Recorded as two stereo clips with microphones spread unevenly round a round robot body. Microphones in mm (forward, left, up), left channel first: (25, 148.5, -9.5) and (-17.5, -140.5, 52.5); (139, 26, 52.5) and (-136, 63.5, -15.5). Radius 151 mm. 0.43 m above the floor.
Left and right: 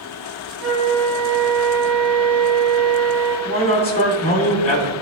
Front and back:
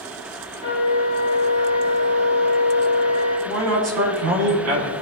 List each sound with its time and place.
0.6 s a flute: 150° right, 4.5 m
3.5 s a man speaking: 150° left, 3.5 m